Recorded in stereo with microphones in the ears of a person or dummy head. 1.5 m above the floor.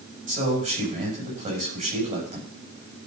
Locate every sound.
0.3 s a man speaking: 40° right (ahead or behind), 8.5 m